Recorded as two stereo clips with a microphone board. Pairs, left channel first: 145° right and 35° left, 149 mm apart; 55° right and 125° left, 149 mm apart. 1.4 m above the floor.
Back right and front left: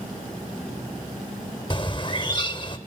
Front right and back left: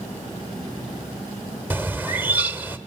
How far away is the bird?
About 1.3 m.